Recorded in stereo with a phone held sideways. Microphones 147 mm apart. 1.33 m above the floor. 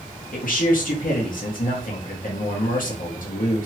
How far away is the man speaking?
About 1.1 m.